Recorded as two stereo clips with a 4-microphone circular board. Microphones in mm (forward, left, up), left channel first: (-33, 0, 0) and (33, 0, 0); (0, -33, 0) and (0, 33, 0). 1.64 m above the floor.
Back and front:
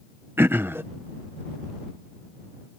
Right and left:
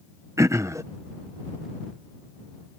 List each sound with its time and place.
0.4 s throat clearing: 55° left